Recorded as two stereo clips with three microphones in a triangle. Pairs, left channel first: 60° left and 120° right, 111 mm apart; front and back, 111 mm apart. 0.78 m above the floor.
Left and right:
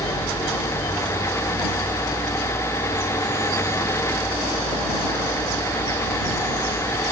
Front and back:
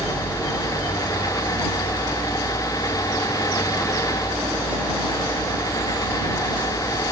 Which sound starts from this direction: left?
A vehicle, at 0.0 s.